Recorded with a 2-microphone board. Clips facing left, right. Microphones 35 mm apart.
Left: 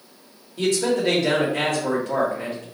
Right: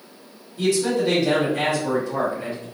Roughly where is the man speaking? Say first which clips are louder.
Even; left.